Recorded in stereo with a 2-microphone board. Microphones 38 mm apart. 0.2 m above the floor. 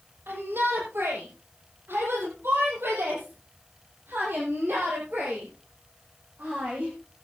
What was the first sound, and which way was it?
A shout, 75° right (ahead or behind).